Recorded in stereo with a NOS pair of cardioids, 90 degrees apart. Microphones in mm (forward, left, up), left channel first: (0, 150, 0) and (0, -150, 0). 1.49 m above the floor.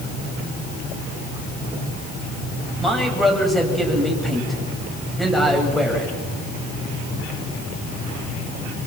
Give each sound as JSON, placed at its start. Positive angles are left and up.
{"t": 2.8, "sound": "a man speaking", "azimuth_deg": 0, "distance_m": 8.5}